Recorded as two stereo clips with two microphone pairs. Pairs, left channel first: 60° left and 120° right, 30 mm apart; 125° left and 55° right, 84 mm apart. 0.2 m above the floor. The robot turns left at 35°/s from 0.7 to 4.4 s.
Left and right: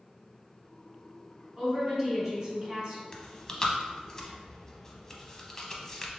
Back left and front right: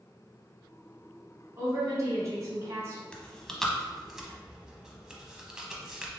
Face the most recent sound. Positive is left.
turn(degrees=15)